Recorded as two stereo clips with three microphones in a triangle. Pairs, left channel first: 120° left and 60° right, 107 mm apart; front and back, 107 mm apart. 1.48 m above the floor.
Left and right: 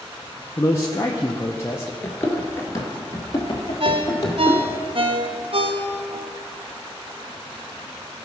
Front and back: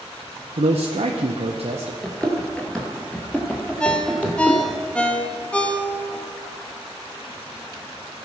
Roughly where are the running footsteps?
Left.